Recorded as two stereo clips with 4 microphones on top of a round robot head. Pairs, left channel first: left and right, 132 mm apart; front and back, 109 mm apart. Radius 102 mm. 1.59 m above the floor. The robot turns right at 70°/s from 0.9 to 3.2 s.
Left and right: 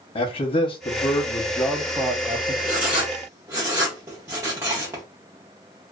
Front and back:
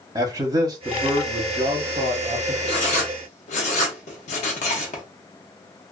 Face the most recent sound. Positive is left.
turn(degrees=-15)